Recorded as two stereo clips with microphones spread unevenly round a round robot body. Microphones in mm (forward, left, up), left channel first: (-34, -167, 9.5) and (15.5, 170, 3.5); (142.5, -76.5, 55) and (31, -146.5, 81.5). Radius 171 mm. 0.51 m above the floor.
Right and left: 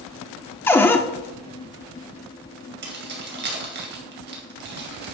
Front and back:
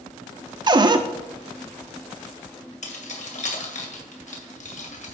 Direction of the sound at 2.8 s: 20° left.